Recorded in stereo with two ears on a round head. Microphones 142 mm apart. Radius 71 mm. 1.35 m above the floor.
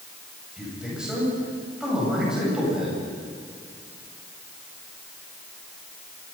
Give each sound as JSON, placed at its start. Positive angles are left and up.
{"t": 0.6, "sound": "a man speaking", "side_deg": -5, "distance_m": 8.5}